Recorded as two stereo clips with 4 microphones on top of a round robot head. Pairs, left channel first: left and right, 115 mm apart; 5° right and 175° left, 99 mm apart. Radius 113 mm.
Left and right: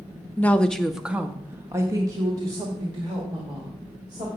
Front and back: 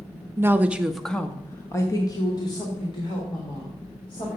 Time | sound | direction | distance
0.4 | a woman speaking | 150° left | 0.8 m